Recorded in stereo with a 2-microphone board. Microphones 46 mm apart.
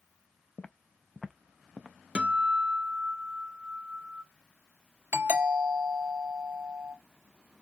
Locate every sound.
0.6 s footsteps: 25° left (ahead or behind), 0.5 m; by 2.0 s 25° right (ahead or behind), 0.9 m
2.1 s a guitar: 25° right (ahead or behind), 1.0 m
5.1 s a doorbell: 55° right (ahead or behind), 3 m